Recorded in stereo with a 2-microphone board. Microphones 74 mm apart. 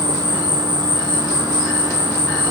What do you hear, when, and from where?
0.0 s an insect: 75° right (ahead or behind), 1.6 m